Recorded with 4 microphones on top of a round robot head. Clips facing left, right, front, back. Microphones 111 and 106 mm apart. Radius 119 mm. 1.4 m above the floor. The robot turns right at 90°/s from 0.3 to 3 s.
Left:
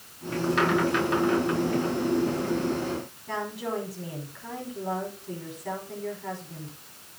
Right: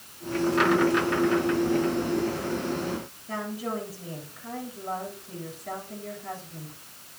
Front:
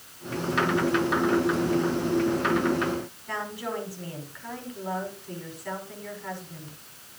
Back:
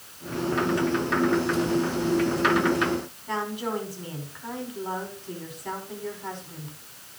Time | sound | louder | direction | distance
3.3 | a woman speaking | left 1 dB, back 5 dB | 110° left | 6 m